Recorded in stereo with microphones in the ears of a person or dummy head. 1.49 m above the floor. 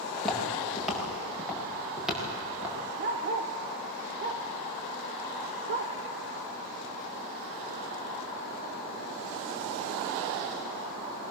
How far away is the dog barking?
About 1.4 m.